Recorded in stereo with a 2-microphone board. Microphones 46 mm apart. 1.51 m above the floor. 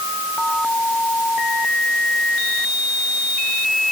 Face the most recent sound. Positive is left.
No sound to turn to.